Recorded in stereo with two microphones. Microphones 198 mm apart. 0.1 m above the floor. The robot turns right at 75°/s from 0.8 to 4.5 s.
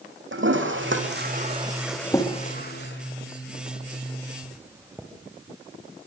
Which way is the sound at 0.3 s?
75° right (ahead or behind).